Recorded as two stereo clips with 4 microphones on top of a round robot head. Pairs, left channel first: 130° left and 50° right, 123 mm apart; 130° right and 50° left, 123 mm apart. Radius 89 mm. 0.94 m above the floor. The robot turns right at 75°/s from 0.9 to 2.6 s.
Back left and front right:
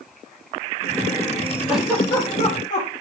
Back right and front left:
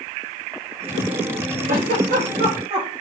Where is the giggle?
30° left, 6 m; by 2.9 s 100° left, 6 m.